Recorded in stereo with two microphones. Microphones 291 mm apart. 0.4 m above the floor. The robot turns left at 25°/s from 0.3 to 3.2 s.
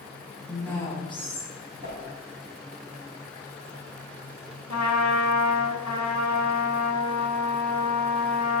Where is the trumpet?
65° left (ahead or behind), 1.6 m.